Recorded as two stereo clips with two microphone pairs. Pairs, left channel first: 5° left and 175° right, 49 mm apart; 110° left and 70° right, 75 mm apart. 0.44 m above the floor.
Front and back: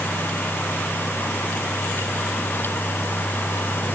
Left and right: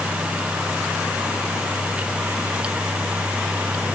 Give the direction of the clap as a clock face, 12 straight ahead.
I don't hear a clap.